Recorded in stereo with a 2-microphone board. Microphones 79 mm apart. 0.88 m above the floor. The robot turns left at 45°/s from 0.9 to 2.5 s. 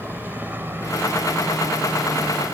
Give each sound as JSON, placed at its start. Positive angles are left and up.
{"t": 0.0, "sound": "a helicopter", "side_deg": -25}